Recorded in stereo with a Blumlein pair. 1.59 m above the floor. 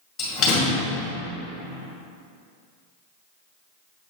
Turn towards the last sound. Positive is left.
turn(degrees=25)